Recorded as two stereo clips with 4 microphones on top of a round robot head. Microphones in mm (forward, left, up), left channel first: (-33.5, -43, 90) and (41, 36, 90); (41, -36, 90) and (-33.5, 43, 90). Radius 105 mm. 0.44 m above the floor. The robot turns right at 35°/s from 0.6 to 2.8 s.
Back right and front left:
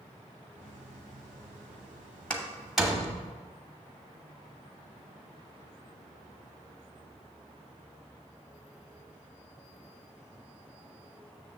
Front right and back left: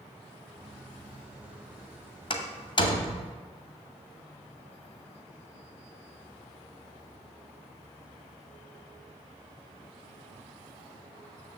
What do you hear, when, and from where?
2.3 s a door slam: 55° right, 1.2 m; by 3.3 s 40° right, 1.2 m